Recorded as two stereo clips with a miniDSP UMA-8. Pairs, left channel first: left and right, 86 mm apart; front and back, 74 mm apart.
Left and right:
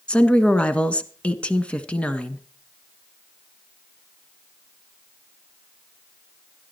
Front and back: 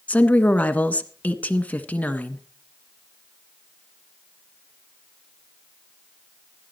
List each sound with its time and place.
0.1 s a woman speaking: 35° left, 1.3 m